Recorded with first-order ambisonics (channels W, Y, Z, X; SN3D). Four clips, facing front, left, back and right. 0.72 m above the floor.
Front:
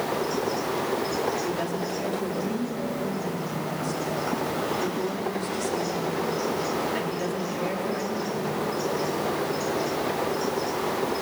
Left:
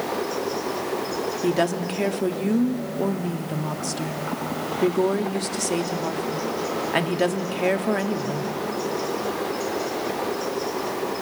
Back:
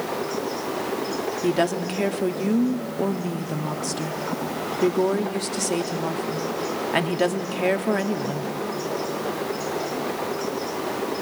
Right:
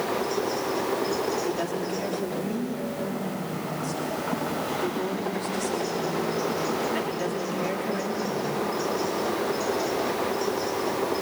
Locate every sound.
1.4 s a woman speaking: 140° left, 1.0 m